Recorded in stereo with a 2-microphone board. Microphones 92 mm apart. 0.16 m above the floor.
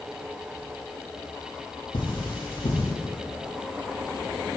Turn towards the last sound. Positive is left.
turn(degrees=60)  # may be behind; listen again after turning